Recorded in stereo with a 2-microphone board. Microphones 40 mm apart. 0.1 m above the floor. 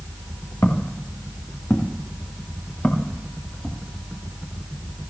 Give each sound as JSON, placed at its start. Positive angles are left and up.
{"t": 0.6, "sound": "footsteps", "side_deg": 70, "distance_m": 4.0}